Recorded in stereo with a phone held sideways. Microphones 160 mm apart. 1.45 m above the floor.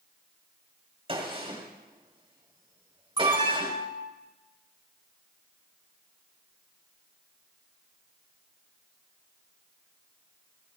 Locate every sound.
1.1 s a gunshot: 35° right (ahead or behind), 3 m
3.2 s an alarm: 35° right (ahead or behind), 3.5 m